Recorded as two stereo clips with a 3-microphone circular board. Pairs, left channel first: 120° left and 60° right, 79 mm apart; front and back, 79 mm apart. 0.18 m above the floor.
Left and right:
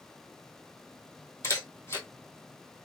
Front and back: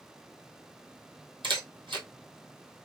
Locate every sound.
1.4 s a camera shutter: 175° left, 1.3 m